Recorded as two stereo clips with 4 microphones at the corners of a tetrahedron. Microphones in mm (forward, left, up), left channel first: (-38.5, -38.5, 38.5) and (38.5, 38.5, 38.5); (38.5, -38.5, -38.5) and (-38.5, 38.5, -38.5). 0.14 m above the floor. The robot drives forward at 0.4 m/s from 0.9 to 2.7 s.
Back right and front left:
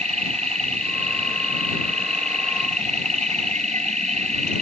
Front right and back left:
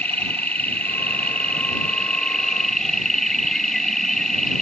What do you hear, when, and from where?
0.0 s an insect: 30° left; by 4.6 s 40° left